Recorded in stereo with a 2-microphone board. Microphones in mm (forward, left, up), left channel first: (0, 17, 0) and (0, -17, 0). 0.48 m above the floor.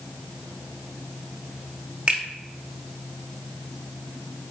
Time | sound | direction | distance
2.1 | a finger snap | 30° right (ahead or behind) | 1.2 m